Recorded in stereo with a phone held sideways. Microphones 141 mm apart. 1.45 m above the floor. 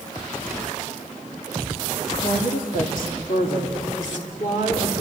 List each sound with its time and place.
2.1 s a woman speaking: 75° left (ahead or behind), 2 m; by 5.0 s 60° left (ahead or behind), 4 m